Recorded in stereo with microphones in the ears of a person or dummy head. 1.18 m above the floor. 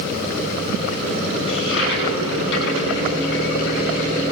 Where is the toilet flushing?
75° left (ahead or behind), 7.5 m.